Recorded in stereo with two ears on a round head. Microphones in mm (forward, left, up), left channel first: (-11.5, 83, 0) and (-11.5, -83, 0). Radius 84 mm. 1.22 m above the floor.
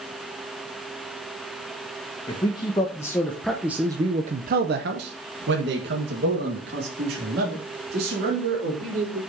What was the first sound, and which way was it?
A man speaking, 25° left (ahead or behind).